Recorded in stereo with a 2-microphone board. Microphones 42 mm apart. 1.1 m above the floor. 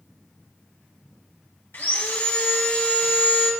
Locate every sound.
1.7 s sawing: 60° left (ahead or behind), 1.6 m